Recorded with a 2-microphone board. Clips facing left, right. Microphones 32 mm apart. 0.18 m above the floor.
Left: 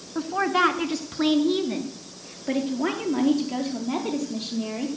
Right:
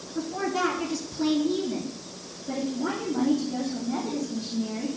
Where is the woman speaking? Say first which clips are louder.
Left 5 dB; 45° left (ahead or behind), 1.8 m; by 4.9 s 70° left (ahead or behind), 5 m.